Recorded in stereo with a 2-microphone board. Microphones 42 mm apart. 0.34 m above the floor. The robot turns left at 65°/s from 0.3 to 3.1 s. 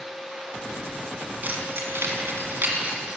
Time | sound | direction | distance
1.4 | keys jangling | 45° right (ahead or behind) | 2 m